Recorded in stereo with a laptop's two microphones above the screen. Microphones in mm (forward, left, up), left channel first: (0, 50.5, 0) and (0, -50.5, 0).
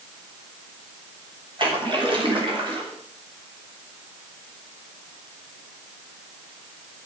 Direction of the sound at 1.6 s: 55° right (ahead or behind).